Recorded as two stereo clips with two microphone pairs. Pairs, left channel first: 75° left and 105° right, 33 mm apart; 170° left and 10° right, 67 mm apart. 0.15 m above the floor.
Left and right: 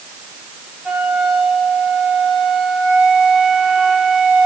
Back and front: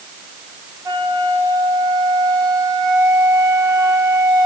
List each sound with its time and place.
0.8 s a flute: 40° right, 5 m